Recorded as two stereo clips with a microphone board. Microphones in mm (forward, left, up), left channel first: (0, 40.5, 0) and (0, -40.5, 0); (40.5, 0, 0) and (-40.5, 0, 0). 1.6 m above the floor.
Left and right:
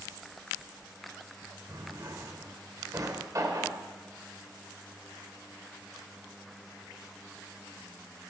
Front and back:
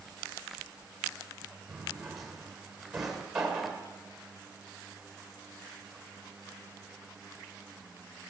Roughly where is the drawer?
Right.